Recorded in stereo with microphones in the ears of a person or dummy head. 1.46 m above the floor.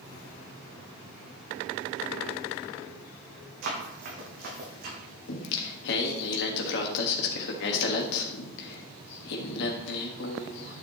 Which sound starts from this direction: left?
Singing, at 5.3 s.